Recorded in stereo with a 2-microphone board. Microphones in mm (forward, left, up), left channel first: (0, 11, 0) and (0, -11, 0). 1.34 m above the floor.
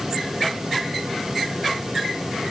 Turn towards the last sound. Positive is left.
No sound to turn to.